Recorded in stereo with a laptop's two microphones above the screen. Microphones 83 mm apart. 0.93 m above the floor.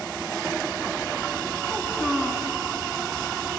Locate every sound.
1.7 s a child speaking: 10° right (ahead or behind), 6 m